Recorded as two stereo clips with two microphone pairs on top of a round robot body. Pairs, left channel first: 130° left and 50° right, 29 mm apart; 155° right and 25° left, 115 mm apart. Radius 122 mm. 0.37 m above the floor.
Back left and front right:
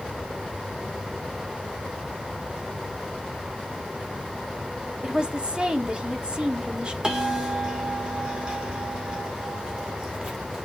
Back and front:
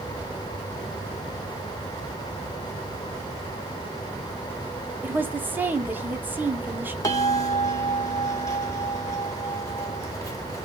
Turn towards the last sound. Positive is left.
turn(degrees=-105)